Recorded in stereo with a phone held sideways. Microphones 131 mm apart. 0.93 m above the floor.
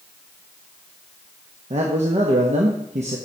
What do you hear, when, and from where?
1.7 s a man speaking: 60° right (ahead or behind), 0.9 m